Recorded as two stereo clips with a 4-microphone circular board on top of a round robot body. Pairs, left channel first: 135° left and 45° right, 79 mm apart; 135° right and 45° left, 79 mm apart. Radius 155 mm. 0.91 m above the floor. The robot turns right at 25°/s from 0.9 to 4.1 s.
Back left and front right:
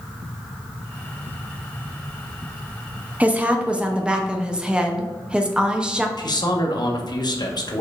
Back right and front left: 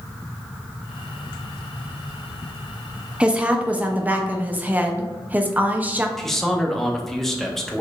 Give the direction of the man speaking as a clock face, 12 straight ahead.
7 o'clock.